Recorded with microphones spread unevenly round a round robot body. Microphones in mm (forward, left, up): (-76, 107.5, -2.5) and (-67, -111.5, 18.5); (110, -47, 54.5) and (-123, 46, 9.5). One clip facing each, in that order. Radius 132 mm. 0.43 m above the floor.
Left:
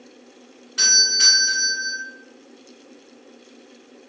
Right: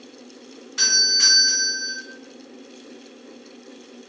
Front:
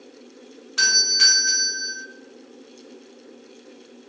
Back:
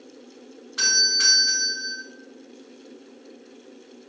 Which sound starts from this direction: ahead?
A doorbell, at 0.8 s.